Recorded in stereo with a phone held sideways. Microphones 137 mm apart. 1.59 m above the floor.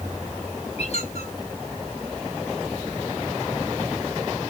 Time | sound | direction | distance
0.8 | a squeak | 50° left (ahead or behind) | 6 m